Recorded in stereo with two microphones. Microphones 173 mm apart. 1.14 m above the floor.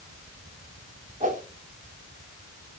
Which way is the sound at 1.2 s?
50° right (ahead or behind).